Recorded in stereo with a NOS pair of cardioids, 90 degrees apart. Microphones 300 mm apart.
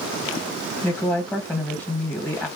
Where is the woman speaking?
5° left, 1.2 m.